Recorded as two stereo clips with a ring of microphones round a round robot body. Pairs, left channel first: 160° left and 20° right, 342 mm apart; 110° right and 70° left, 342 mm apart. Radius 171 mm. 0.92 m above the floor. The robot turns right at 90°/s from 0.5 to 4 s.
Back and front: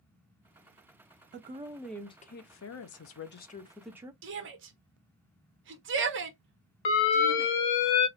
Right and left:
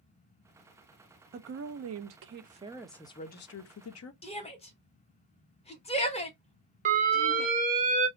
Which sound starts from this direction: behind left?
An alarm, at 6.8 s.